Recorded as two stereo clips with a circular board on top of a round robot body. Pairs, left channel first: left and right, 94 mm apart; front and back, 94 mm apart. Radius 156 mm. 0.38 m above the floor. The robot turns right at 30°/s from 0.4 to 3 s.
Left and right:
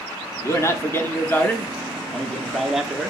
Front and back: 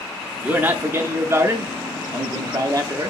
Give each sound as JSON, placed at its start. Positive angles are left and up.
{"t": 0.4, "sound": "a man speaking", "azimuth_deg": 115, "distance_m": 1.0}